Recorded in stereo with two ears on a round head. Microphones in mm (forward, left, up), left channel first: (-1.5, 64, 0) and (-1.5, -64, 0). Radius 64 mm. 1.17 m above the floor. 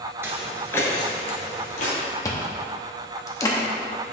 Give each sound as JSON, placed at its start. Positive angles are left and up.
{"t": 0.2, "sound": "footsteps", "side_deg": -15, "distance_m": 1.3}
{"t": 2.2, "sound": "chewing", "side_deg": 25, "distance_m": 0.9}